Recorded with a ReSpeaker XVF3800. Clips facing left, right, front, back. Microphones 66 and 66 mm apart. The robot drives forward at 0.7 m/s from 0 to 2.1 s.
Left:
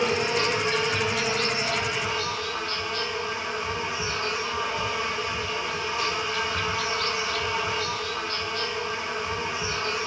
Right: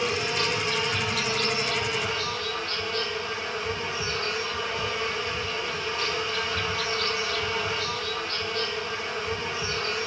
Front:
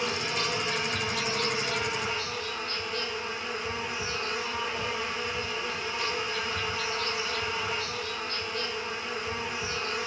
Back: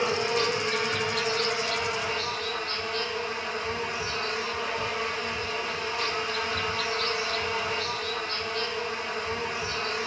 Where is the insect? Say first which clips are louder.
Left 3 dB, back 5 dB; 135° left, 1.3 m; by 10.1 s 160° left, 2.5 m.